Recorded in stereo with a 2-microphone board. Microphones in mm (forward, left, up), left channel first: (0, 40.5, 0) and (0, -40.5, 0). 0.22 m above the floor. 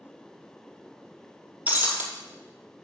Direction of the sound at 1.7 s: 20° right (ahead or behind).